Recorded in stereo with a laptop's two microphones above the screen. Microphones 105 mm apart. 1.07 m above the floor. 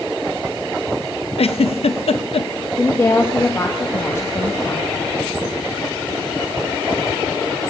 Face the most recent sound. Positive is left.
turn(degrees=25)  # may be behind; listen again after turning